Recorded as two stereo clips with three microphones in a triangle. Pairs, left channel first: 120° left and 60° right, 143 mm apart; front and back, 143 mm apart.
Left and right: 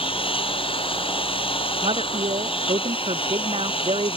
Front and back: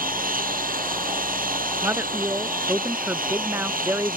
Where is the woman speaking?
105° right.